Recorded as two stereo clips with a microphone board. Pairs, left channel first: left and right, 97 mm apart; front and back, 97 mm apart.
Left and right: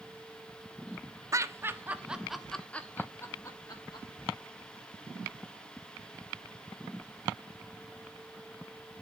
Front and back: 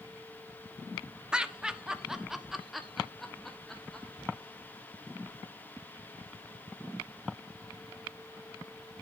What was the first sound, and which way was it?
Laughter, 105° right.